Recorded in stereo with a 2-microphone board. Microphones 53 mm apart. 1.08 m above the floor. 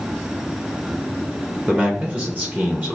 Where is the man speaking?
30° right (ahead or behind), 1.0 m.